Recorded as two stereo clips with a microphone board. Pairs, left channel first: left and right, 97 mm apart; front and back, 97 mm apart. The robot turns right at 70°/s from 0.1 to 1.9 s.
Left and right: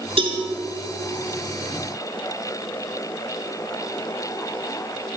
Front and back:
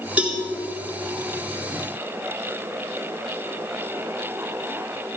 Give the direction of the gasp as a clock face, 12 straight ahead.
No gasp in this recording.